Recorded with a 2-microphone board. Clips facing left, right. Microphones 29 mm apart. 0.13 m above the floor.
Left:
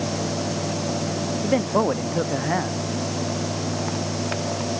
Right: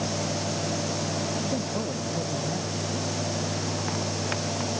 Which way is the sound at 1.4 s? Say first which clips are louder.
Left 9 dB; 75° left (ahead or behind).